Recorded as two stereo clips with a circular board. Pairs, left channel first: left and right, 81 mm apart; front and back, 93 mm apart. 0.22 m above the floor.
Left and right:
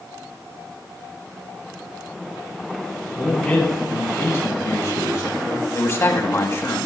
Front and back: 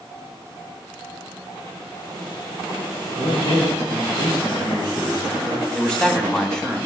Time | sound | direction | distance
3.2 | a man speaking | 20° left | 4.5 m
5.8 | a man speaking | 80° left | 1.4 m